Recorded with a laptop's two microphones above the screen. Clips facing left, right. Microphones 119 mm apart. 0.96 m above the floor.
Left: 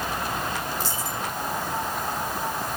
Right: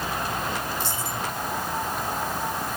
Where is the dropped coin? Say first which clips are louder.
Even; 65° right (ahead or behind), 8.5 m.